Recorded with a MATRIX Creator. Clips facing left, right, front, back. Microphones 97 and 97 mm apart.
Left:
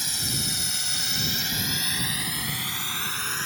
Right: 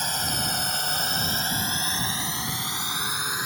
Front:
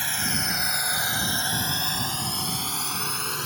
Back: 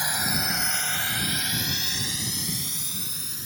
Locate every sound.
0.0 s a drone: 110° right; by 3.5 s 15° right